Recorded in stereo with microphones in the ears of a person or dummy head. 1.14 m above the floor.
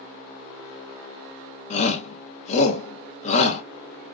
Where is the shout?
35° left (ahead or behind), 1.0 m.